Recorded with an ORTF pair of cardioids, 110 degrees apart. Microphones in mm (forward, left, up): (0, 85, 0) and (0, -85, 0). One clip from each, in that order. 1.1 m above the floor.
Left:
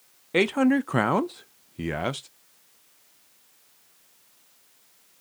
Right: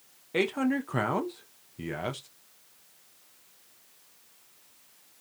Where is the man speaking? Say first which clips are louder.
Left 6 dB; 35° left, 0.7 m.